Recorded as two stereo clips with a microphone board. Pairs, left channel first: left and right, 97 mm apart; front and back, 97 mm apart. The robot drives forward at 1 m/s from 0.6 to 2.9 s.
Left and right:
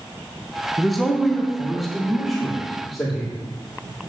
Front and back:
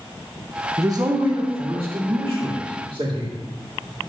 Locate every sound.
0.8 s a man speaking: straight behind, 0.8 m